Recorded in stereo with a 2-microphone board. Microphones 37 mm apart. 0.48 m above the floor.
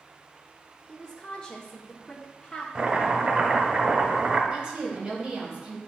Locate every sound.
0.9 s a woman speaking: 25° left (ahead or behind), 1.0 m
2.8 s chopping: 25° right (ahead or behind), 1.5 m
4.5 s a woman speaking: 25° right (ahead or behind), 3 m